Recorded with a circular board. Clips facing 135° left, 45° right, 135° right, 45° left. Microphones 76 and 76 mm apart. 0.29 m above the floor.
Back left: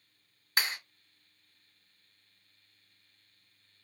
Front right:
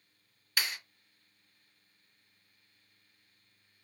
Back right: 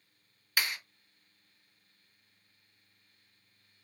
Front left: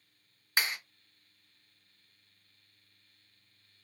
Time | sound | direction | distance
0.6 | a clap | 95° left | 1.9 m